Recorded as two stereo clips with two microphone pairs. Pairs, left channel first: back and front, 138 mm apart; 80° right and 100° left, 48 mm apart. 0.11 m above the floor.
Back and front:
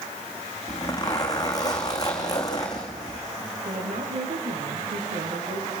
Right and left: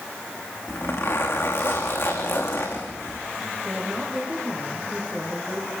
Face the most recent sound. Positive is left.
turn(degrees=15)